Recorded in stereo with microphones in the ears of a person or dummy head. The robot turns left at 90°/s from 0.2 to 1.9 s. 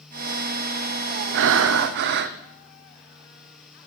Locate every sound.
1.3 s breathing: 70° right, 0.5 m; by 2.4 s 120° right, 0.5 m